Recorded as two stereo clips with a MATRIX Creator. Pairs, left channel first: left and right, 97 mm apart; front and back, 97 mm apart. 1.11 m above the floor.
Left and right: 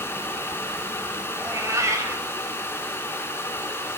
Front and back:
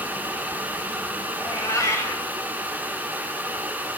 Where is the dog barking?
No dog barking in this recording.